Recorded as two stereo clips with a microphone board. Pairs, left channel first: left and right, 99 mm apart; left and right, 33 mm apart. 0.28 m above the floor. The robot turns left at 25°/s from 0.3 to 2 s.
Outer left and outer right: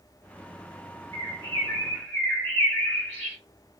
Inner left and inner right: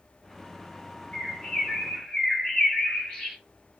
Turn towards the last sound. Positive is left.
turn(degrees=30)  # may be behind; listen again after turning